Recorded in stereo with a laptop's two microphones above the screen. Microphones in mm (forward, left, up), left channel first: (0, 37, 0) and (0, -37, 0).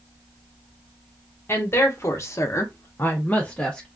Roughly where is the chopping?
I don't hear chopping.